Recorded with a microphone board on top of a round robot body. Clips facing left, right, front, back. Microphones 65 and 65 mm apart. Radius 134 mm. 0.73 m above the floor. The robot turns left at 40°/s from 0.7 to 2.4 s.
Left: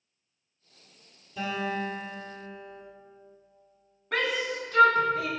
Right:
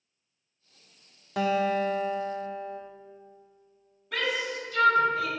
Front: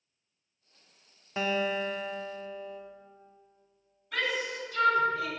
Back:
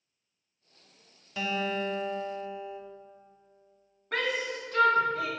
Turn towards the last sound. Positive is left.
turn(degrees=135)